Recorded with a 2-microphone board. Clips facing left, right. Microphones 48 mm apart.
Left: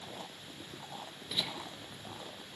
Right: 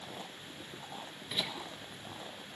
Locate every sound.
1.3 s laughter: 20° right (ahead or behind), 1.7 m